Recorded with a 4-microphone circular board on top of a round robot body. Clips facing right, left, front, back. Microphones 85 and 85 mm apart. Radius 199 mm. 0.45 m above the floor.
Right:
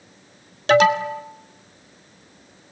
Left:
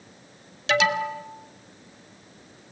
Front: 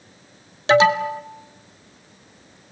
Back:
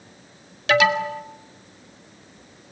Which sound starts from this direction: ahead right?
An alarm, at 0.7 s.